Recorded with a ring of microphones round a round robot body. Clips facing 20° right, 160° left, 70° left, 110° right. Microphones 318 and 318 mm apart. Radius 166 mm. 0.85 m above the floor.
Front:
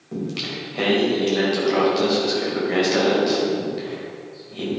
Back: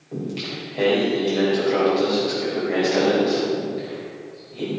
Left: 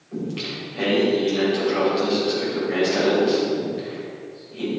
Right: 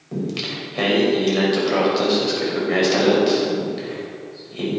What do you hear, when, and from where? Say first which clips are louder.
0.1 s singing: front 1 dB, right 2 dB; 85° right, 4 m